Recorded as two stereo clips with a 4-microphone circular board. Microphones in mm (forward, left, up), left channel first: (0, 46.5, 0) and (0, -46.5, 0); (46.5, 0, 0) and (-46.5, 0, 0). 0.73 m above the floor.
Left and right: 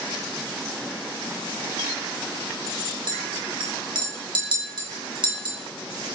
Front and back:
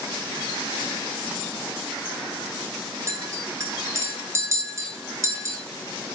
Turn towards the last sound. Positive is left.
turn(degrees=-120)